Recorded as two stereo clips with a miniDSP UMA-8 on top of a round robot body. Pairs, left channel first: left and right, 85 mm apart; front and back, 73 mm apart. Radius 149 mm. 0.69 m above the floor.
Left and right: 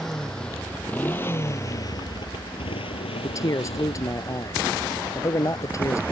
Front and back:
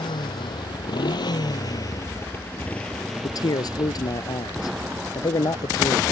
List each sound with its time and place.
0.0 s a motorcycle: 5° left; by 6.1 s 130° left
3.2 s a man speaking: 35° left